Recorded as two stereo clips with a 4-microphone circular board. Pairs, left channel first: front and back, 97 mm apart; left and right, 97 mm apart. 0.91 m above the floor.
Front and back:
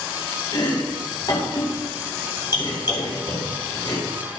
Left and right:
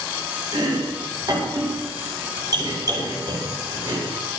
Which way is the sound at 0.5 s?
45° right.